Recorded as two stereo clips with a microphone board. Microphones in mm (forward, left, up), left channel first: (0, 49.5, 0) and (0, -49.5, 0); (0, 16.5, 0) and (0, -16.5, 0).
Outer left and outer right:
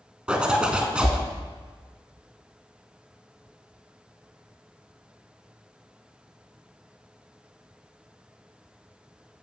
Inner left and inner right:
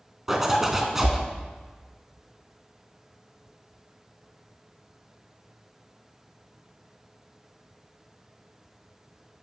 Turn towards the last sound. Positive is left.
turn(degrees=-10)  # may be behind; listen again after turning